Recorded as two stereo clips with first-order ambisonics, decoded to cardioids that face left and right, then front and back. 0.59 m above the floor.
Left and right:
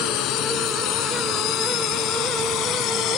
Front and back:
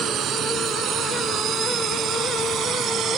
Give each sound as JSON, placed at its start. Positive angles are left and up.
{"t": 0.0, "sound": "a drone", "azimuth_deg": 125}